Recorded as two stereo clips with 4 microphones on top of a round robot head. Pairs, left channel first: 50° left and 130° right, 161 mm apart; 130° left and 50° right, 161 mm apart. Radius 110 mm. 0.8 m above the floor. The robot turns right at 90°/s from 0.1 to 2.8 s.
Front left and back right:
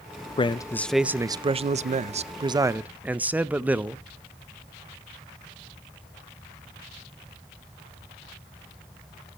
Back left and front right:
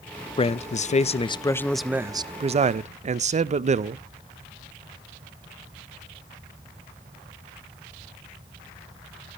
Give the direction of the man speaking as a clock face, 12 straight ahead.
9 o'clock.